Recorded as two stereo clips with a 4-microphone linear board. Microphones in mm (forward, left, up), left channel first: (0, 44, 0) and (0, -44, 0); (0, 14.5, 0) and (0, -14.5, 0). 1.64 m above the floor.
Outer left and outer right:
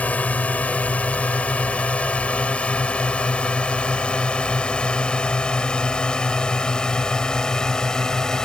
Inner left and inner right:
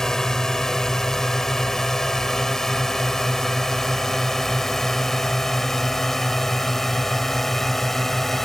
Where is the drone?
15° left (ahead or behind); by 8.4 s 5° left (ahead or behind).